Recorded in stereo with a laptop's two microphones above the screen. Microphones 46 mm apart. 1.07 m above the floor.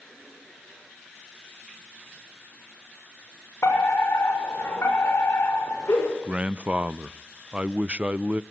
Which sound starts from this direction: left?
A fire alarm, at 3.6 s.